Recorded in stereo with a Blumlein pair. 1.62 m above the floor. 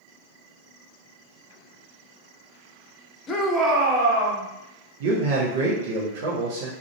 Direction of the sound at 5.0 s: 55° right.